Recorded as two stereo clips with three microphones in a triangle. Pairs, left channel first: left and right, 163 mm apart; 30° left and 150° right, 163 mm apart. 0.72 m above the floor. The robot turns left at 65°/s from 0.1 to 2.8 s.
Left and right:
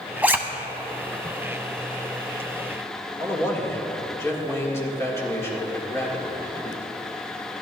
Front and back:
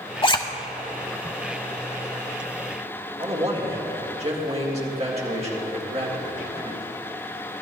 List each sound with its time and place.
0.2 s a zipper: 10° right, 0.7 m; by 0.4 s 25° right, 0.7 m
3.2 s a man speaking: 165° left, 1.8 m